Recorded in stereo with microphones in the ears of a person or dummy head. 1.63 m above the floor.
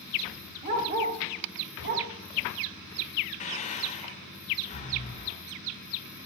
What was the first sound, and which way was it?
A dog barking, 30° right (ahead or behind).